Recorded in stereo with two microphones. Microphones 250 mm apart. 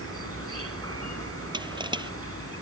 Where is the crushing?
20° right (ahead or behind).